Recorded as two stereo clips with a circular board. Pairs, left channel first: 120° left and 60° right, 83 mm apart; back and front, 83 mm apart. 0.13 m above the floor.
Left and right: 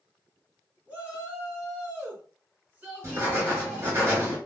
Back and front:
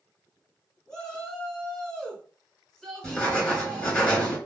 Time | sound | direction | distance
0.9 | a shout | 105° right | 1.7 m
3.0 | writing | 105° right | 2.5 m